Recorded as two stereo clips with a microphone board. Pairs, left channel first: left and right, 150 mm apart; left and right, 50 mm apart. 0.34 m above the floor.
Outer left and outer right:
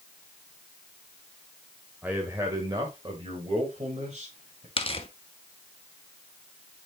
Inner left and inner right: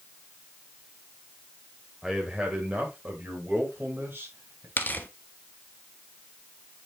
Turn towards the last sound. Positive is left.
turn(degrees=40)  # may be behind; listen again after turning